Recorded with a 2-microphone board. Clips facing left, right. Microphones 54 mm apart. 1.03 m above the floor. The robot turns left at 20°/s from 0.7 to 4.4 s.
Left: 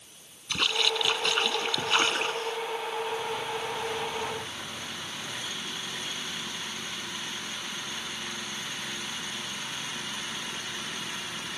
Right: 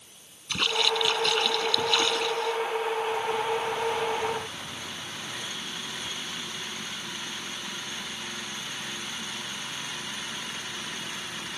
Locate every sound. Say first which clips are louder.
0.5 s a splash: right 1 dB; 175° left; by 2.5 s 140° left